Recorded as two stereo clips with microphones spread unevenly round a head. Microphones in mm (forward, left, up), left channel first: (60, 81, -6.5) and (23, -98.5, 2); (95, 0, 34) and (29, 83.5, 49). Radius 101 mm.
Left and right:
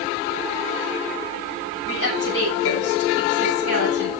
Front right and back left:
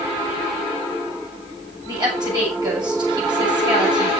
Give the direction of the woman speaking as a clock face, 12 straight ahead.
9 o'clock.